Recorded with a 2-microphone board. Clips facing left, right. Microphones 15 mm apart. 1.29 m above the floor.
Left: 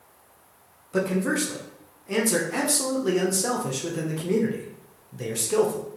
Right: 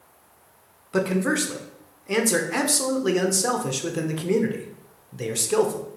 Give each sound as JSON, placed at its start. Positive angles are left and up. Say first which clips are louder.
{"t": 0.9, "sound": "a man speaking", "louder": "right 2 dB", "side_deg": -25, "distance_m": 0.5}